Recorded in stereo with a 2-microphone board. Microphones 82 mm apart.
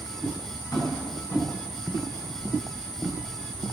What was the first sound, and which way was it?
Tapping, 40° left (ahead or behind).